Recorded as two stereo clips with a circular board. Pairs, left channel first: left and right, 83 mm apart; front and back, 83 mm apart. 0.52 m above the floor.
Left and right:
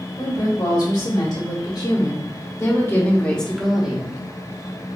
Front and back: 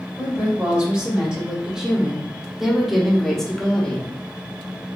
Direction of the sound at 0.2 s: 105° left.